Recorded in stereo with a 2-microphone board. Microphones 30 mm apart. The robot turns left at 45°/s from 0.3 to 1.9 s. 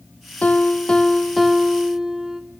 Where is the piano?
50° left, 0.8 m; by 2.4 s 20° right, 0.8 m.